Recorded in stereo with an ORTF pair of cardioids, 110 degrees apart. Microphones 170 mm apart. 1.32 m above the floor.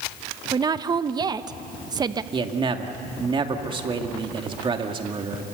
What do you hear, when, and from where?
0.5 s a woman speaking: 25° right, 0.9 m
2.3 s a man speaking: 30° right, 2.5 m